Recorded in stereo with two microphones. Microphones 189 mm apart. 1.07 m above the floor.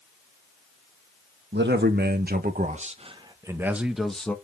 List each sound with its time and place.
1.5 s a man speaking: 65° right (ahead or behind), 1.7 m; by 4.3 s 5° left (ahead or behind), 1.7 m